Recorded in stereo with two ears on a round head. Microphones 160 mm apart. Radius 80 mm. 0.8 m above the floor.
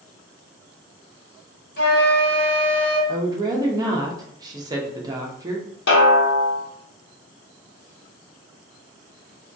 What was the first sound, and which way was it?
A flute, 60° left (ahead or behind).